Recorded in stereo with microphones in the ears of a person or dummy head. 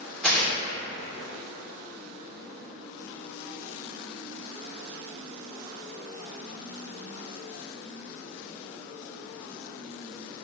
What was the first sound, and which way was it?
Tearing paper, 10° left (ahead or behind).